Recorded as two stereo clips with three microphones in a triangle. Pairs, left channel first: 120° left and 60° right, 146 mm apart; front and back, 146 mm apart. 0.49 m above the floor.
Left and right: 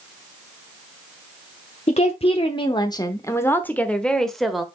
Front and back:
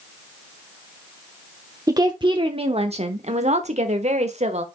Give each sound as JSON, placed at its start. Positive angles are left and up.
{"t": 1.9, "sound": "a woman speaking", "azimuth_deg": 125, "distance_m": 0.9}